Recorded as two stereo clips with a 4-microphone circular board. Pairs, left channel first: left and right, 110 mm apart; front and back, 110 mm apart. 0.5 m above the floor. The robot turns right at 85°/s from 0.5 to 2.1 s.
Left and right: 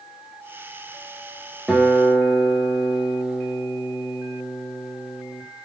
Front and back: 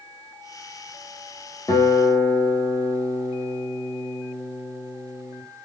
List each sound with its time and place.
1.7 s a guitar: 5° right, 0.9 m; by 5.4 s 30° left, 0.9 m